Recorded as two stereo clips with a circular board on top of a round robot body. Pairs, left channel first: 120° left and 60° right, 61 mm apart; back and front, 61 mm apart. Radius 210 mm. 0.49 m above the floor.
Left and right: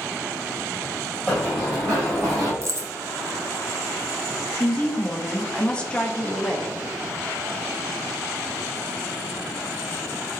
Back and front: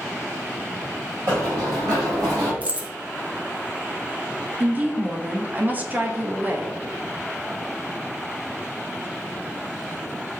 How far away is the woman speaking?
About 0.8 m.